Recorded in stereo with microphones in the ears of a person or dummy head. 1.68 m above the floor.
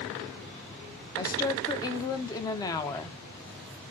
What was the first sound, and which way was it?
A woman speaking, 25° left (ahead or behind).